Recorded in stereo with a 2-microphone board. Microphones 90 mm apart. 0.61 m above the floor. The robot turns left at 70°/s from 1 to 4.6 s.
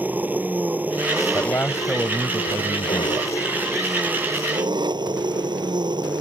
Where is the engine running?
160° right; by 6.2 s 55° right.